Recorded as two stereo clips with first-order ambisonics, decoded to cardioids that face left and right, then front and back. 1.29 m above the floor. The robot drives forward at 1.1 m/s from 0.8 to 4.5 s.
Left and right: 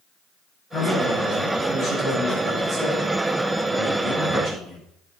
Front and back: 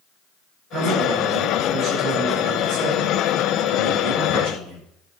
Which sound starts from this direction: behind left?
A man speaking, at 0.7 s.